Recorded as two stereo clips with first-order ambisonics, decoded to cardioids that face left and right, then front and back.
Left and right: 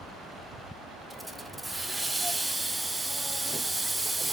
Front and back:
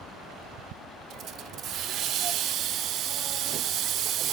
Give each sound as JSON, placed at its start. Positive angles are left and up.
{"t": 1.1, "sound": "a hiss", "azimuth_deg": -175, "distance_m": 0.6}